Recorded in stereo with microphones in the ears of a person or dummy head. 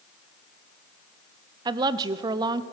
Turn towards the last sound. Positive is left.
turn(degrees=-25)  # may be behind; listen again after turning